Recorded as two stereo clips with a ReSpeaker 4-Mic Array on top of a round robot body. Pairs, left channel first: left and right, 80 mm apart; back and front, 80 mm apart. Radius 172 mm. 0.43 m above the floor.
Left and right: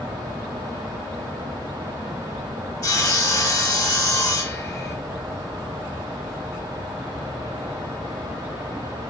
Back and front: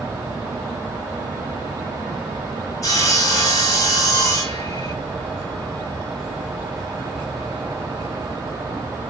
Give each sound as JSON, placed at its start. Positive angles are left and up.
{"t": 2.8, "sound": "sawing", "azimuth_deg": 135, "distance_m": 1.9}